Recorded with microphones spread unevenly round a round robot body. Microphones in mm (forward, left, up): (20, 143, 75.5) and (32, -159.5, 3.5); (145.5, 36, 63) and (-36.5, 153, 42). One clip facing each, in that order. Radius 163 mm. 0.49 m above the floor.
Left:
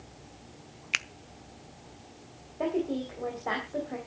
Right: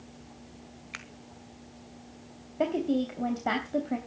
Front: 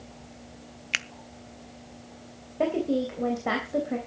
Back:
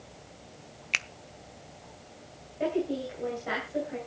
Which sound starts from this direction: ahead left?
A finger snap, at 0.9 s.